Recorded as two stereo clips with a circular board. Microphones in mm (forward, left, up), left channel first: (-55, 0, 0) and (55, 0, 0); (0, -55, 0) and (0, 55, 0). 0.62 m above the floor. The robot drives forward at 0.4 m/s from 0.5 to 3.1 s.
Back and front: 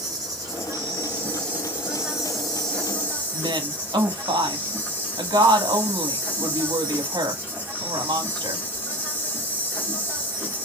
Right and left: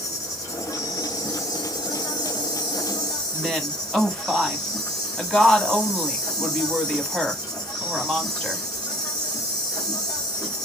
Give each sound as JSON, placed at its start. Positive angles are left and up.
{"t": 0.0, "sound": "an insect", "azimuth_deg": -40, "distance_m": 1.3}
{"t": 3.3, "sound": "a woman speaking", "azimuth_deg": -5, "distance_m": 0.9}